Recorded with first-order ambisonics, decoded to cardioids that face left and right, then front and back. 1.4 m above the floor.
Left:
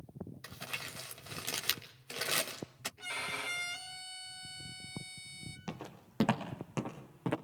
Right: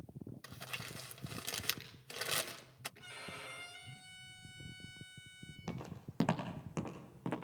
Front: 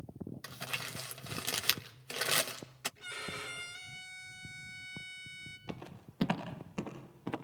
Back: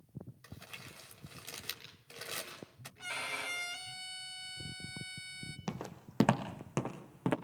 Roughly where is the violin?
Behind left.